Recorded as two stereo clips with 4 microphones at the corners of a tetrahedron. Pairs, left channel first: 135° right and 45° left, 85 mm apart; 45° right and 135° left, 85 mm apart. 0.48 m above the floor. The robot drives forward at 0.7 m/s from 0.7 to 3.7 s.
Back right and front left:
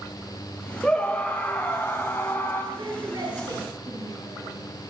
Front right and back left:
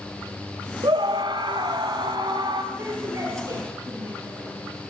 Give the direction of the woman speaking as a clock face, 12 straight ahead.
9 o'clock.